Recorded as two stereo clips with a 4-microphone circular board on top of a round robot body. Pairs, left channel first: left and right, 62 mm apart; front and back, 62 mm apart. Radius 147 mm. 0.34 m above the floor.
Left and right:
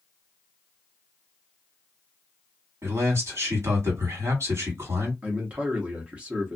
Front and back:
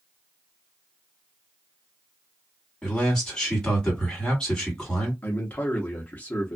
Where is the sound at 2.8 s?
75° right, 2 m.